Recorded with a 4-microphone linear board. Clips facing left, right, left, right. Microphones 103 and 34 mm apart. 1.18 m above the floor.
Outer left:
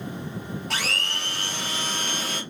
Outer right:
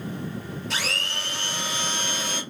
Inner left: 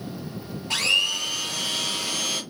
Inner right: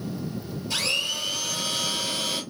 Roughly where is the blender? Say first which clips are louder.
Even, inner left 5 dB; left.